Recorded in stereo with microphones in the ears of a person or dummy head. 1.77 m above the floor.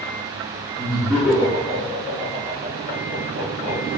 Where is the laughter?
5° right (ahead or behind), 0.7 m; by 3.8 s 20° right (ahead or behind), 2 m.